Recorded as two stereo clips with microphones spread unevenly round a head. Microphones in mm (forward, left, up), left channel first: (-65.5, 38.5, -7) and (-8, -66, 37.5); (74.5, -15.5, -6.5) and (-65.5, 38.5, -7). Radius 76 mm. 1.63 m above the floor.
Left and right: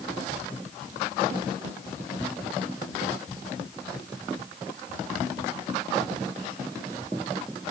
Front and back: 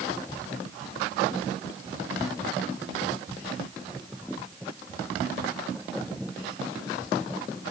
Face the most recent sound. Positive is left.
No sound to turn to.